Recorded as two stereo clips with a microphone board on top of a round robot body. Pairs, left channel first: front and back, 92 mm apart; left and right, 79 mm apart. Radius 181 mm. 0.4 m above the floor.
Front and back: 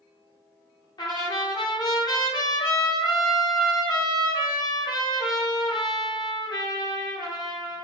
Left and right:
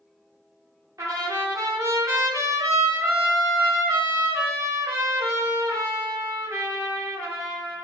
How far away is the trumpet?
About 0.9 m.